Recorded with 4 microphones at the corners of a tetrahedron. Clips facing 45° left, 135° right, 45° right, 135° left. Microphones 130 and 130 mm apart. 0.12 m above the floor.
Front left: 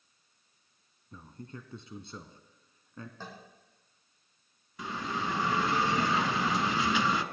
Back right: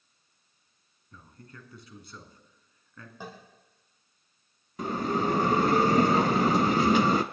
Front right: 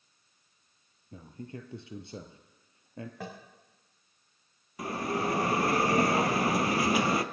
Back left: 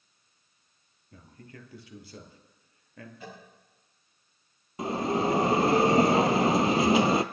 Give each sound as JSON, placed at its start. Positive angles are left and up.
{"t": 1.1, "sound": "a man speaking", "azimuth_deg": 0, "distance_m": 1.3}
{"t": 3.2, "sound": "tapping", "azimuth_deg": -60, "distance_m": 4.5}
{"t": 4.8, "sound": "a bell", "azimuth_deg": -165, "distance_m": 0.5}